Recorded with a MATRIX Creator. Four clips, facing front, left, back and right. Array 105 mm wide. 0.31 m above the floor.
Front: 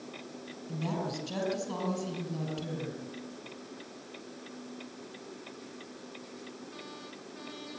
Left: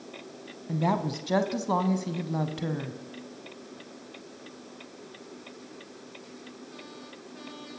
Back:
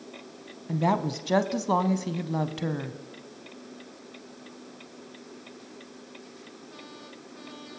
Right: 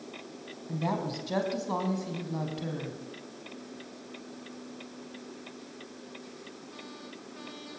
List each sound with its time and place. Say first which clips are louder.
0.7 s a woman speaking: left 4 dB, back 9 dB; 160° left, 2.5 m